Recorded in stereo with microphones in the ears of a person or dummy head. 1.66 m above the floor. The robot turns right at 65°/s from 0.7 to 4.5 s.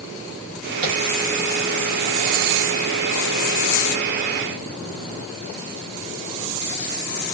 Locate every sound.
0.8 s tapping: 40° right (ahead or behind), 1.3 m; by 1.0 s 45° right (ahead or behind), 1.3 m